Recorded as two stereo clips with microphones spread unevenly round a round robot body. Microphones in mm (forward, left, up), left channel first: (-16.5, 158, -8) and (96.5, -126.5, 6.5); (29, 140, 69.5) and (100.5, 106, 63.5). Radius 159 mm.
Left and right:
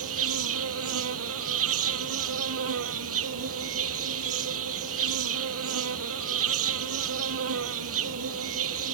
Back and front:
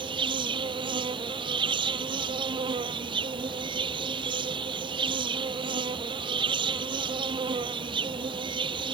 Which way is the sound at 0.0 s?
30° right.